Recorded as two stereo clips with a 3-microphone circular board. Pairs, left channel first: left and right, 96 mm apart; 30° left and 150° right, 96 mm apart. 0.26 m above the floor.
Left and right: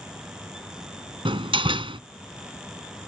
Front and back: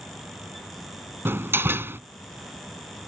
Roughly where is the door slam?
Right.